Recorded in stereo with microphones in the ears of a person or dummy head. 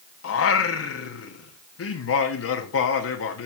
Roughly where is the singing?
Left.